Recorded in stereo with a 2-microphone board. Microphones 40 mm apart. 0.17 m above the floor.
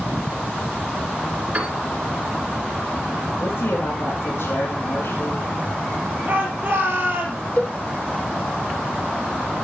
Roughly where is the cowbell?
Left.